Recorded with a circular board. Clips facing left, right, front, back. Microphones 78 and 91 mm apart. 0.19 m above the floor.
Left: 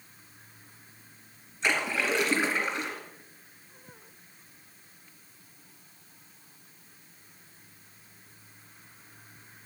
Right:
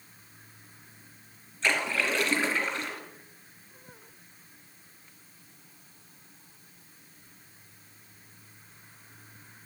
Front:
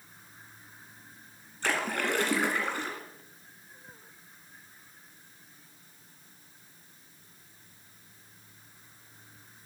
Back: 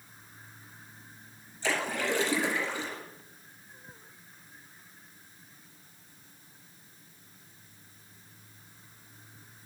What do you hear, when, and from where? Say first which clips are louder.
1.6 s a splash: even, front 1 dB; 15° left, 2.5 m